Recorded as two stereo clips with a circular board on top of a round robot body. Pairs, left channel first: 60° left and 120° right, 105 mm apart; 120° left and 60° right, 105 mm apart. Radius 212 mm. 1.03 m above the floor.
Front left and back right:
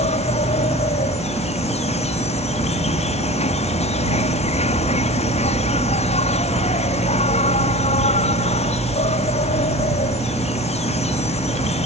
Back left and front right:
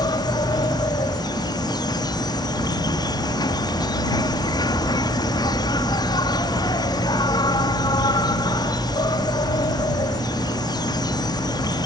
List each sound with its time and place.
0.0 s an insect: 65° left